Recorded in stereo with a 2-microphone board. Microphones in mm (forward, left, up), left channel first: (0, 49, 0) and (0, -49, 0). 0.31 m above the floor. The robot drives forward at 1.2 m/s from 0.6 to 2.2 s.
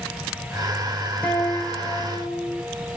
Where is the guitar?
15° left (ahead or behind), 3.5 m; by 2.6 s 25° left (ahead or behind), 2.5 m.